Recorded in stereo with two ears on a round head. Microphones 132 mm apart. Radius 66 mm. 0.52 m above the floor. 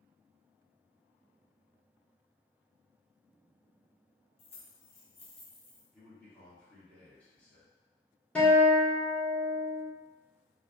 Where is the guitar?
5° left (ahead or behind), 0.8 m.